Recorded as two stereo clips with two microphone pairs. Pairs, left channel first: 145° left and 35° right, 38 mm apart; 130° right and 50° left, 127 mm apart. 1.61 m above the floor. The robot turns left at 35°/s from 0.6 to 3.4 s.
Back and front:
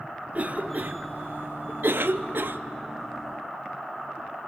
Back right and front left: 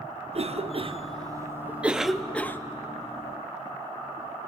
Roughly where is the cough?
Ahead.